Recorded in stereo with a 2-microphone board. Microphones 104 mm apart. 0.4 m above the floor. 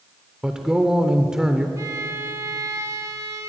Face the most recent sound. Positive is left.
turn(degrees=-30)  # may be behind; listen again after turning